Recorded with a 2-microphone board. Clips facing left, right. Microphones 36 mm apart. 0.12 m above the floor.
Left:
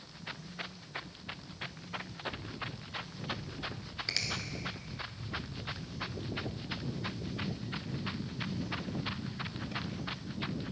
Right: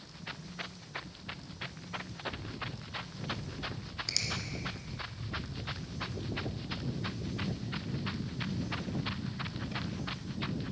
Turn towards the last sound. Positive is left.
turn(degrees=30)  # may be behind; listen again after turning